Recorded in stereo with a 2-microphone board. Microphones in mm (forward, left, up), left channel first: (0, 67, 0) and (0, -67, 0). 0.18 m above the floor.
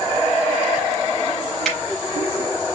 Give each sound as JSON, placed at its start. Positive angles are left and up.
{"t": 1.6, "sound": "a finger snap", "side_deg": 0, "distance_m": 5.0}